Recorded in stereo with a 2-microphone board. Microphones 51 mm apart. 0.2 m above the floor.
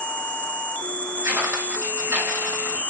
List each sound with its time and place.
0.0 s an insect: 25° left (ahead or behind), 1.1 m
1.2 s footsteps: 70° right (ahead or behind), 5.5 m; by 2.8 s 75° right (ahead or behind), 4.5 m